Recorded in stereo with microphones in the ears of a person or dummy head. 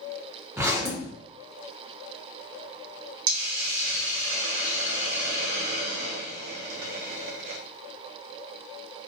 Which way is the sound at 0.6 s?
10° right (ahead or behind).